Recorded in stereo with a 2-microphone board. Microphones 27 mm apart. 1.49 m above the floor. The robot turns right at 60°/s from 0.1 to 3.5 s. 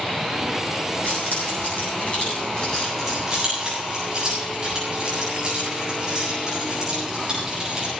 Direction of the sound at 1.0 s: 60° left (ahead or behind).